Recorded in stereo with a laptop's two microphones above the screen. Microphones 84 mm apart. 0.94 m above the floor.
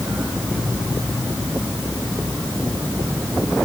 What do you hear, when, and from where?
Only background noise.